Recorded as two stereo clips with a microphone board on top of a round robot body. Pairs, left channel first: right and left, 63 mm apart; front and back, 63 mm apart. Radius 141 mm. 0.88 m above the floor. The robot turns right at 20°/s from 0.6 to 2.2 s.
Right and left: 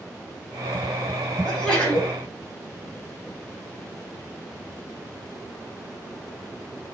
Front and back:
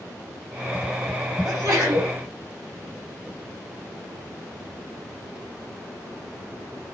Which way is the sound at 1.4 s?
165° right.